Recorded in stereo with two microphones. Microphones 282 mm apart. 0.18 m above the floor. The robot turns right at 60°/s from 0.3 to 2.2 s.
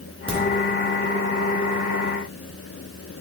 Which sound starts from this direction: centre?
A crack, at 0.3 s.